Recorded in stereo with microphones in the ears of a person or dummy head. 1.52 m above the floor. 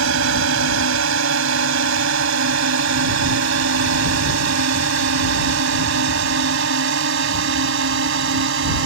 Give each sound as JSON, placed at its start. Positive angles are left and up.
{"t": 0.0, "sound": "a drone", "side_deg": -75}